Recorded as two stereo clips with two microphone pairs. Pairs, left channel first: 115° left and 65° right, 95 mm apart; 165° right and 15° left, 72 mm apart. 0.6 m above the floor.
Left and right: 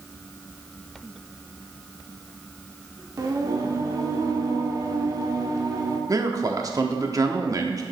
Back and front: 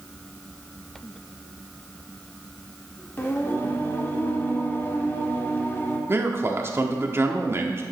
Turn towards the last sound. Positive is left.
turn(degrees=-25)